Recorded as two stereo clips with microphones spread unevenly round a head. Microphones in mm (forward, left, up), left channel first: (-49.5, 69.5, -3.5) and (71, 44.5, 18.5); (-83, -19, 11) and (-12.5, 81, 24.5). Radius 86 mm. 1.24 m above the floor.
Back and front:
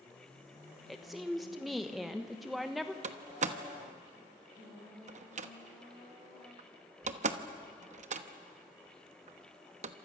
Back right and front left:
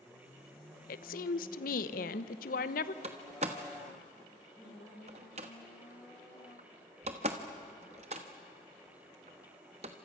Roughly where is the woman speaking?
Right.